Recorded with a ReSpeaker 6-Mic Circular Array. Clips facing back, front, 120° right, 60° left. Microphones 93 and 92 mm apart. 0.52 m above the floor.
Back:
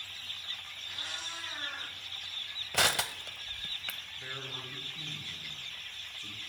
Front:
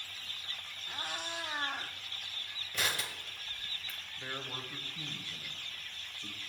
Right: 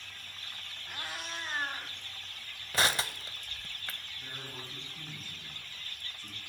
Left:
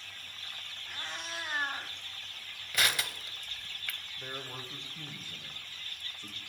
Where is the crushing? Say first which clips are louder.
Back 6 dB, right 3 dB; straight behind, 0.7 m.